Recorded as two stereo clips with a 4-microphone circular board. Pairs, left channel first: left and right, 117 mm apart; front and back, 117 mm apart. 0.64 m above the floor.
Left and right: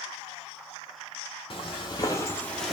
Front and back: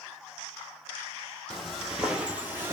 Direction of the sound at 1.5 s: 90° left.